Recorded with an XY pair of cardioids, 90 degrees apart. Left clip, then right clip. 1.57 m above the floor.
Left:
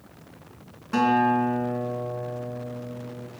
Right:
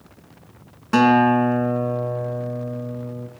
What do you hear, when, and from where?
0.9 s a guitar: 65° right, 2.5 m